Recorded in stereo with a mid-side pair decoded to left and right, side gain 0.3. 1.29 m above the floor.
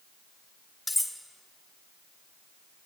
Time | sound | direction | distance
0.9 | cutlery clinking | 25° left | 1.8 m